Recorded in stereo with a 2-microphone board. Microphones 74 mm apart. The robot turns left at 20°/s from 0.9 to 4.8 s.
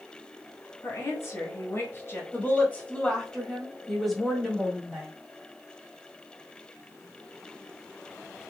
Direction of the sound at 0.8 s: 40° left (ahead or behind).